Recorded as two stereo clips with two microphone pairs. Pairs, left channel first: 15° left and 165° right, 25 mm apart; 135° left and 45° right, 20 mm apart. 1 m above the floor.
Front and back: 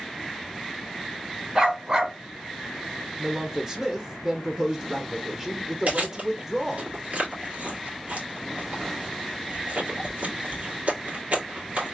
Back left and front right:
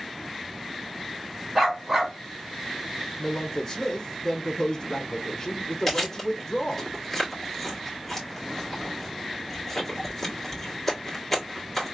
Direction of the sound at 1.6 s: 115° right.